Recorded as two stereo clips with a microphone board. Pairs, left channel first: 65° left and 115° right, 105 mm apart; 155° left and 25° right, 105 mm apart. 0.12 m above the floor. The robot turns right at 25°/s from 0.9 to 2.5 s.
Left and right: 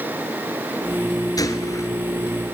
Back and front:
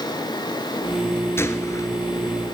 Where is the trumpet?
I don't hear a trumpet.